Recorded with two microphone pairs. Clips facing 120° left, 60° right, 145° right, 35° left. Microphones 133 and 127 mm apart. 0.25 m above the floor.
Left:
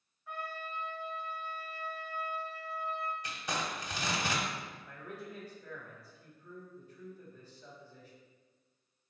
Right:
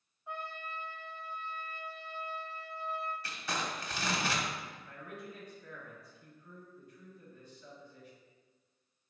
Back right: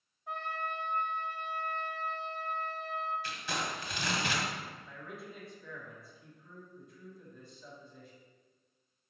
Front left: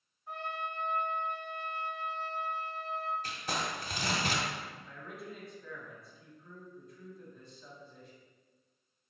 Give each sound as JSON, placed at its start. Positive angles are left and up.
{"t": 0.3, "sound": "a trumpet", "azimuth_deg": -125, "distance_m": 0.7}
{"t": 3.2, "sound": "crumpling", "azimuth_deg": 55, "distance_m": 0.8}
{"t": 4.9, "sound": "a man speaking", "azimuth_deg": 130, "distance_m": 1.2}